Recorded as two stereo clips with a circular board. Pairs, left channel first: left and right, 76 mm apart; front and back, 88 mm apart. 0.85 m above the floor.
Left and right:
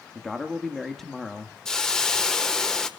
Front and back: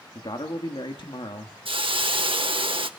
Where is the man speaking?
5° left, 1.6 m.